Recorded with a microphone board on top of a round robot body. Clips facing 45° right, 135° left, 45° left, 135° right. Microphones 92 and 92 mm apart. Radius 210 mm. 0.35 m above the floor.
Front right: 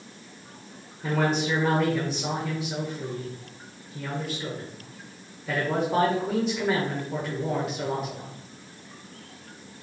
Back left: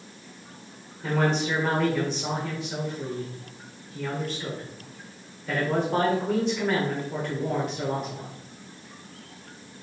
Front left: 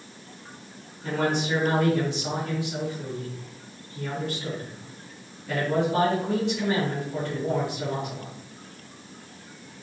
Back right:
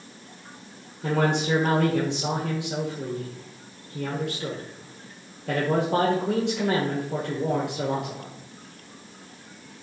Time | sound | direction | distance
1.0 | a man speaking | 130° right | 2 m